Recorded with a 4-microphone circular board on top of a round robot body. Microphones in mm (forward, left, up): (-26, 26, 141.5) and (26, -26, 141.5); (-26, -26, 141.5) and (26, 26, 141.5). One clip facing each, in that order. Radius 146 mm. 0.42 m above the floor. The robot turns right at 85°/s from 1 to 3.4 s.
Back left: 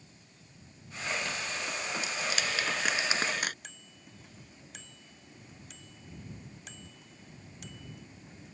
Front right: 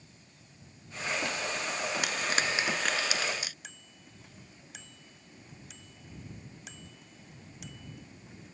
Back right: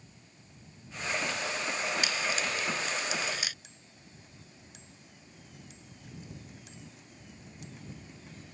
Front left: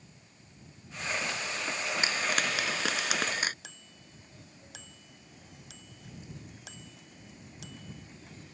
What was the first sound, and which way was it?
Frying, 20° right.